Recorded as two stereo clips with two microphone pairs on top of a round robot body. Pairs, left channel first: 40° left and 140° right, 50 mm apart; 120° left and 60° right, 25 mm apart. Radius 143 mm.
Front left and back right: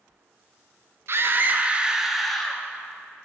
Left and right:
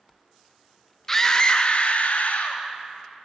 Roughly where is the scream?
Behind.